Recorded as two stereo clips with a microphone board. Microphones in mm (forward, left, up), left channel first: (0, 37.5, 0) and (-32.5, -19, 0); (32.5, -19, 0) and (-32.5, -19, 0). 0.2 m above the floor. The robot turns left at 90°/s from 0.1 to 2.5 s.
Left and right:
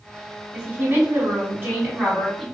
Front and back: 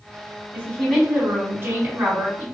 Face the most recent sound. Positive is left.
turn(degrees=130)